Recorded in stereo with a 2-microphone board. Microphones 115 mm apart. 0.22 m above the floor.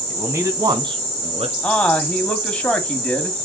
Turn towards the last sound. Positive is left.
turn(degrees=10)  # may be behind; listen again after turning